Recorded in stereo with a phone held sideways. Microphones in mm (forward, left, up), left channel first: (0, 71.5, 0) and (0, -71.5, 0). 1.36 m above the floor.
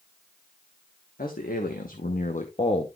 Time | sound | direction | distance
1.2 | a man speaking | 85° left | 1.4 m